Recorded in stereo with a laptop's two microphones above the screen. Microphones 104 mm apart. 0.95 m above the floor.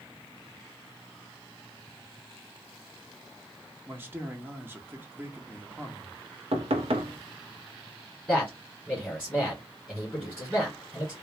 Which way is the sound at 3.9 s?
20° right (ahead or behind).